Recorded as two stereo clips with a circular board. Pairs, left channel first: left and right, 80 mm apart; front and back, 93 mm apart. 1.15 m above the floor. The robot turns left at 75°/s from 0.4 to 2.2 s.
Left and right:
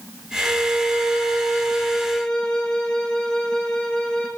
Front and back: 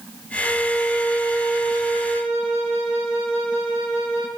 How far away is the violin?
About 1.7 m.